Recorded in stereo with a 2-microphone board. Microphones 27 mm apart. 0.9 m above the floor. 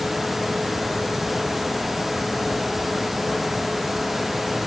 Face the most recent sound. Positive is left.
No sound to turn to.